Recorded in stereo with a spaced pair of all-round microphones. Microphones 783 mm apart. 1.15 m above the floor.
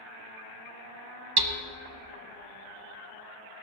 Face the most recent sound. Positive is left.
turn(degrees=-30)  # may be behind; listen again after turning